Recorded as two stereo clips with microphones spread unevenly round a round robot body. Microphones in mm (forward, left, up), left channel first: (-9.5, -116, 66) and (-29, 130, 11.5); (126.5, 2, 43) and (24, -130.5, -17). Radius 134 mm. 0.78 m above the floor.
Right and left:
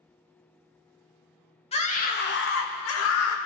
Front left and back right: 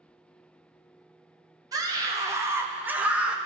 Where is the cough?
No cough in this recording.